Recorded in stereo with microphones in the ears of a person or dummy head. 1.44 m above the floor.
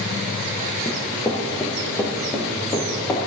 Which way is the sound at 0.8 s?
10° left (ahead or behind).